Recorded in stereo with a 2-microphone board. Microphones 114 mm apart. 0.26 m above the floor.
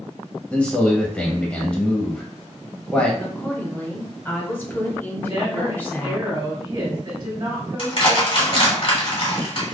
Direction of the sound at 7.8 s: 50° left (ahead or behind).